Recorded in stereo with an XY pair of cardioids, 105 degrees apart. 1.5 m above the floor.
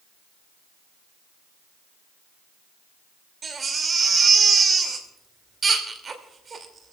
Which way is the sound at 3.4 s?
40° right.